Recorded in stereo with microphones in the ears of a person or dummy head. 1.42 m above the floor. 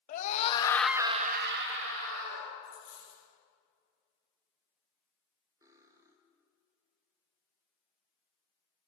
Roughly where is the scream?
Left.